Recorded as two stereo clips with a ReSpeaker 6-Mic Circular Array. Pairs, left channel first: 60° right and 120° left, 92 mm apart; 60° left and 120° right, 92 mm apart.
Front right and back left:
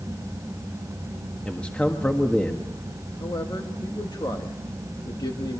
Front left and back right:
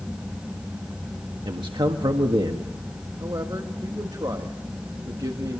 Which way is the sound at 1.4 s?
135° right.